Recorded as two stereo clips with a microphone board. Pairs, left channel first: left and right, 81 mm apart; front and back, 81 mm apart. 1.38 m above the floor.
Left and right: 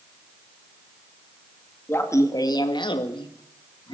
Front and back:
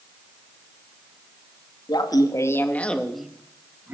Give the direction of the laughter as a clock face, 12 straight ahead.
11 o'clock.